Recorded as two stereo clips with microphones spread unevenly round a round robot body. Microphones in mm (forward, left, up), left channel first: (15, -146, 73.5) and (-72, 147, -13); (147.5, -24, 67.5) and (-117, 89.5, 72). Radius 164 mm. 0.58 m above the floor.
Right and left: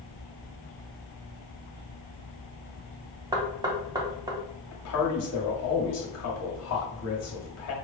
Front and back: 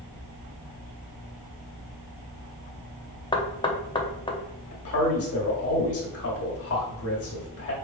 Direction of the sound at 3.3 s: 45° left.